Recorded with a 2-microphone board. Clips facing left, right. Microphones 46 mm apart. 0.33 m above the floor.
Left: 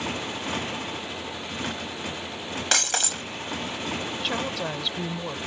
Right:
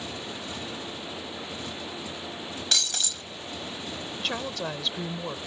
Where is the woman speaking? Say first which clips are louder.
Even; 5° left (ahead or behind).